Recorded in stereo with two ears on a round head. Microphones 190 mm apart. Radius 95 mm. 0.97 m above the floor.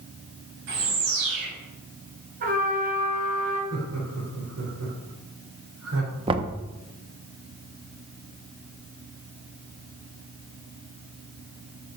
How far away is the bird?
About 6 m.